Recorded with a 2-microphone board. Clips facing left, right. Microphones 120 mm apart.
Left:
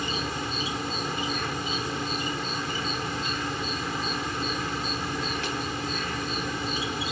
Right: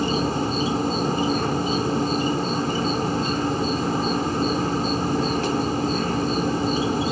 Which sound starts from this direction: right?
An insect, at 0.0 s.